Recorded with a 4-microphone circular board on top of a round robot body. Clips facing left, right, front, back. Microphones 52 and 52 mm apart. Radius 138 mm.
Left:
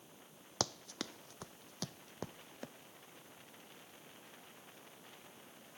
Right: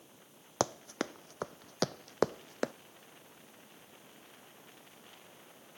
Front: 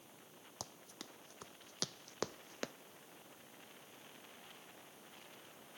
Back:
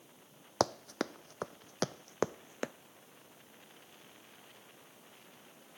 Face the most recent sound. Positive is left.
turn(degrees=-105)